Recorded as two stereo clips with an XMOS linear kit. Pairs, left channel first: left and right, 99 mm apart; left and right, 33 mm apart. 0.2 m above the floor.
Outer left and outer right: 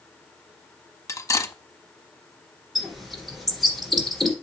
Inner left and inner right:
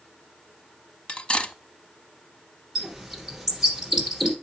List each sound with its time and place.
1.1 s cutlery clinking: 35° left (ahead or behind), 0.7 m
2.8 s a bird: centre (ahead or behind), 2.5 m